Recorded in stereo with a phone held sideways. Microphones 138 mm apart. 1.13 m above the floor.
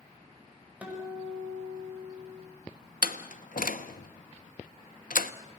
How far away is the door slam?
About 1.0 m.